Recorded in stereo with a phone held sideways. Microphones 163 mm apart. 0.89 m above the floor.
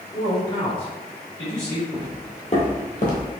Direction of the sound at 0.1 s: 30° left (ahead or behind).